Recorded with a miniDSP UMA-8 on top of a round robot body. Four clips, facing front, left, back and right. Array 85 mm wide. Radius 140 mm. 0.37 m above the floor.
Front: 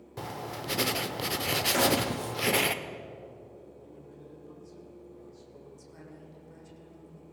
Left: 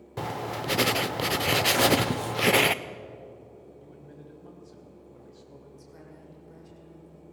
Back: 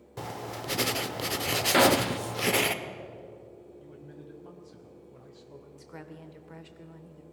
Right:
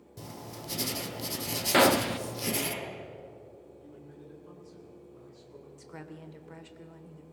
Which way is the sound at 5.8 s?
140° right.